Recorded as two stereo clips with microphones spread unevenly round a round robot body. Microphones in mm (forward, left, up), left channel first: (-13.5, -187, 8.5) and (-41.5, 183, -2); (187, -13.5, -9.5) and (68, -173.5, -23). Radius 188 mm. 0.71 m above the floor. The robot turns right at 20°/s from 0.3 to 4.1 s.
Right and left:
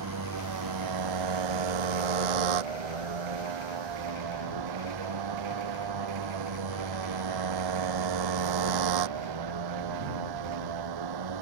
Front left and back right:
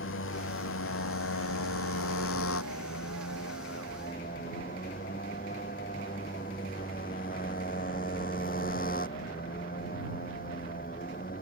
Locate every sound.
0.0 s a motorcycle: 45° left; by 11.4 s 120° left